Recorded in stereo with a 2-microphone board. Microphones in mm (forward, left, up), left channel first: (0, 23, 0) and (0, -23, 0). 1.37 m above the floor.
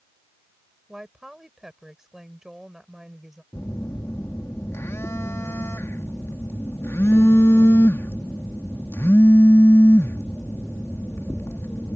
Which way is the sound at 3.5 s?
75° left (ahead or behind).